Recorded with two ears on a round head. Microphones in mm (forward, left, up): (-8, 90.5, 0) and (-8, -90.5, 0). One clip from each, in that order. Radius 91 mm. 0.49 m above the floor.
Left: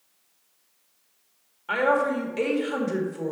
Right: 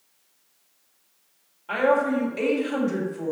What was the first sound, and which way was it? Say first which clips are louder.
A woman speaking: right 1 dB; 45° left (ahead or behind).